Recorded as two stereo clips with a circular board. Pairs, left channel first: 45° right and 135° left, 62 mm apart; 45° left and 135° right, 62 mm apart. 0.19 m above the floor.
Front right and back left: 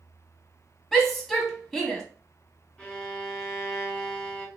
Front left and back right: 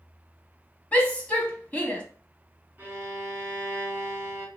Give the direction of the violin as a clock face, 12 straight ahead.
4 o'clock.